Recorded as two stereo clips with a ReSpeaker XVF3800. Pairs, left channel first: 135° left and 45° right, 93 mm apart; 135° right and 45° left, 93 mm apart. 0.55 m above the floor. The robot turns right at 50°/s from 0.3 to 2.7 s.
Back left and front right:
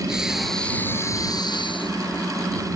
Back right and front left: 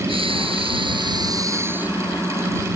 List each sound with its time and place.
0.1 s breathing: 40° left; by 2.2 s 135° left